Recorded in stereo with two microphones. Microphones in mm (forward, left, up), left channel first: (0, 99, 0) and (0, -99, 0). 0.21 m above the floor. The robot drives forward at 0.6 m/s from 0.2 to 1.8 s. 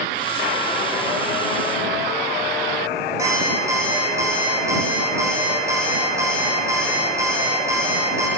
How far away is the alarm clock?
About 8 m.